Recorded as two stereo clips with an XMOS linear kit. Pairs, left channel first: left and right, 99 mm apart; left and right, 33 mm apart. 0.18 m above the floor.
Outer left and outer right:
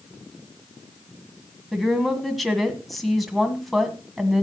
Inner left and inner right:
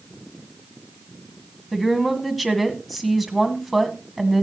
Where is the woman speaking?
Centre (ahead or behind), 1.6 m.